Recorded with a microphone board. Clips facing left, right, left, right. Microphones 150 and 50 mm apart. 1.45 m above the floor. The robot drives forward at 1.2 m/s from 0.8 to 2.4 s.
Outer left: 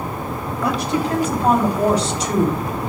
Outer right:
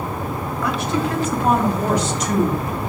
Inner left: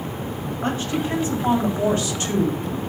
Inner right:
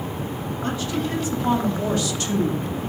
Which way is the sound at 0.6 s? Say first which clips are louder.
Outer left 2 dB, inner left 2 dB; 40° left (ahead or behind).